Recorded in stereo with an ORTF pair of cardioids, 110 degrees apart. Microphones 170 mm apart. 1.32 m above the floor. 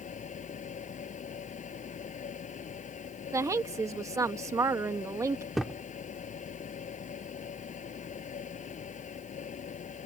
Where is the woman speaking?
20° right.